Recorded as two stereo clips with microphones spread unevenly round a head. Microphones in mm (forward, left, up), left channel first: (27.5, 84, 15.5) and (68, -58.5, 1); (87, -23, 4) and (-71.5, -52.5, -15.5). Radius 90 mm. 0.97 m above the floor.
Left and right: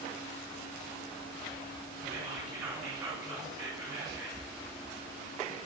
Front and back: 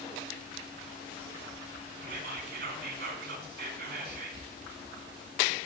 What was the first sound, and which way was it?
Whispering, 160° right.